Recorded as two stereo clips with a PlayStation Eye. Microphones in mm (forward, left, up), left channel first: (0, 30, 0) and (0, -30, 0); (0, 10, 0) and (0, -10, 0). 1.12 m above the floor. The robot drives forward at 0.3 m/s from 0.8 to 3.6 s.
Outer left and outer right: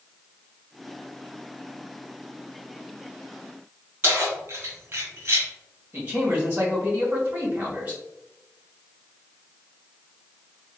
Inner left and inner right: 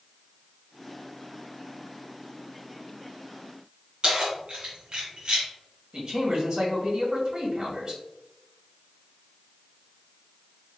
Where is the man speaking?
25° right (ahead or behind), 2 m.